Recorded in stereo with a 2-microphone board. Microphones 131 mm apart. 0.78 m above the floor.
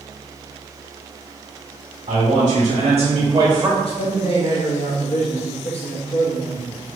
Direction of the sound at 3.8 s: 45° left (ahead or behind).